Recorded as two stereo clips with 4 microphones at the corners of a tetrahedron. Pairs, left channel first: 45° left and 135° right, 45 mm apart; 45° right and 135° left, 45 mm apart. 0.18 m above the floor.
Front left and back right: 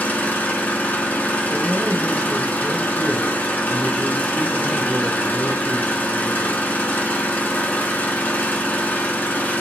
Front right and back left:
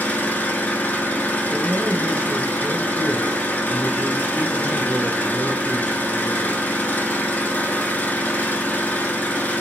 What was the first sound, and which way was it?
An engine running, straight ahead.